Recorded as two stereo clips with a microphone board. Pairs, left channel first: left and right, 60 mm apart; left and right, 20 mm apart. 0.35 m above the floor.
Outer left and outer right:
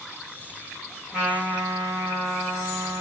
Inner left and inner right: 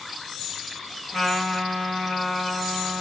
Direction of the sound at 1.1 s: 10° right (ahead or behind).